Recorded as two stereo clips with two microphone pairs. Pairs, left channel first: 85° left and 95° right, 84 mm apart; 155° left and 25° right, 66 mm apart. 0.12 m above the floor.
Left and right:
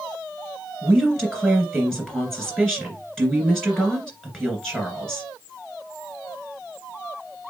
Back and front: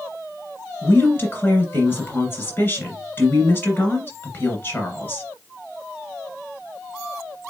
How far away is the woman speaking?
About 2 m.